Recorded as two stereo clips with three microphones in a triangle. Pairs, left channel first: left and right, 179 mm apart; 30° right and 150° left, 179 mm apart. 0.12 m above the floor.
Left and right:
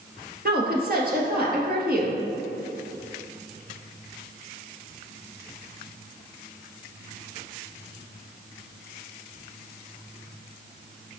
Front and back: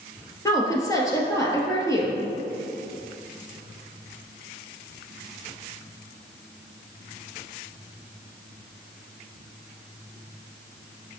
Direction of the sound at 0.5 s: 100° right.